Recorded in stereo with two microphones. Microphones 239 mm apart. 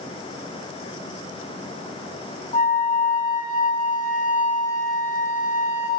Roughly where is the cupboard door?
No cupboard door in this recording.